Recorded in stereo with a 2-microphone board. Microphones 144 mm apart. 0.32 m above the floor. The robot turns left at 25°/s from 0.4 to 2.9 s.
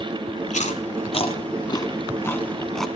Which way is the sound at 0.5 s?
60° left (ahead or behind).